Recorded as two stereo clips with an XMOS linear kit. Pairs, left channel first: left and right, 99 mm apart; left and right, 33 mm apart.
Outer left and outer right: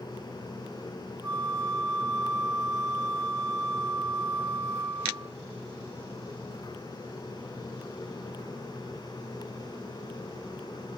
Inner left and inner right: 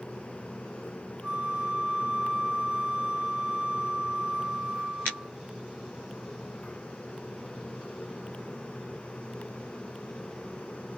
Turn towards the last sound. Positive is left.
turn(degrees=-30)  # may be behind; listen again after turning